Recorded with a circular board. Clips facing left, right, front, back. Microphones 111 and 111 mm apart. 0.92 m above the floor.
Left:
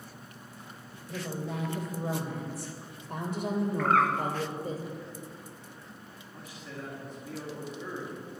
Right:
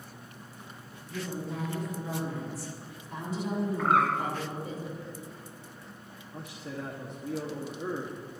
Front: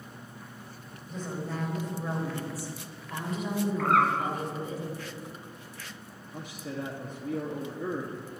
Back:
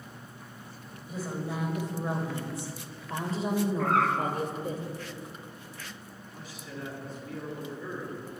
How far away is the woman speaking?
About 3.5 m.